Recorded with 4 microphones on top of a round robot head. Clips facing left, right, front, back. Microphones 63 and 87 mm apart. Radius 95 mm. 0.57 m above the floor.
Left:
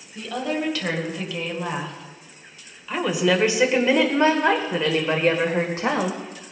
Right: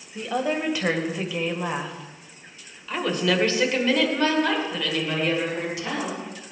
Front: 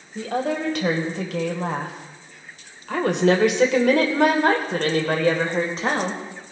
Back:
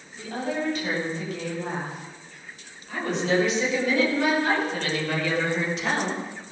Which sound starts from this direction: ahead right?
A woman speaking, at 0.1 s.